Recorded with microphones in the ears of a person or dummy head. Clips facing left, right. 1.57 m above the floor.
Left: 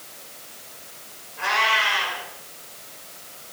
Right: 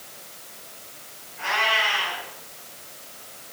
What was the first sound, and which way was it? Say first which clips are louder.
A cat meowing: left 1 dB; 65° left (ahead or behind).